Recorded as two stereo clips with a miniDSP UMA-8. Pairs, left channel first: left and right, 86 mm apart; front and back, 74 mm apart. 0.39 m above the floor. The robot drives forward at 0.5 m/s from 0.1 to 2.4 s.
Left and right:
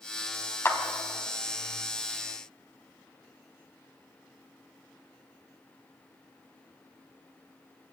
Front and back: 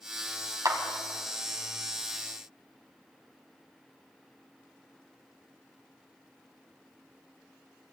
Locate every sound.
0.7 s a clap: 150° left, 1.7 m